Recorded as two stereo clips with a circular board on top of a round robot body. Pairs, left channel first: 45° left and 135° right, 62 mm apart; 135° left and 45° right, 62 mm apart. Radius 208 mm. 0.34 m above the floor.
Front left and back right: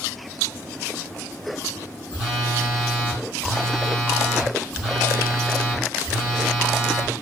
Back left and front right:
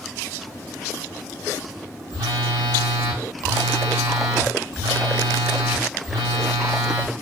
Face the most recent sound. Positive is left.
turn(degrees=-45)